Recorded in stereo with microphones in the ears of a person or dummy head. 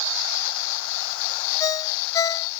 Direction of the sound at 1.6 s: 25° left (ahead or behind).